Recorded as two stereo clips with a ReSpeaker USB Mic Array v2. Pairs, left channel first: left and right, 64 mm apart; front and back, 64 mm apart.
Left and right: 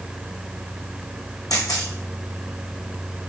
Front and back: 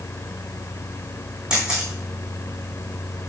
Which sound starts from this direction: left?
A camera shutter, at 1.5 s.